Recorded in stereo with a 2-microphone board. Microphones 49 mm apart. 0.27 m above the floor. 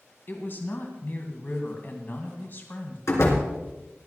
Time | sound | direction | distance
0.3 | a woman speaking | 45° left (ahead or behind) | 2 m
3.1 | a door slam | 70° left (ahead or behind) | 3 m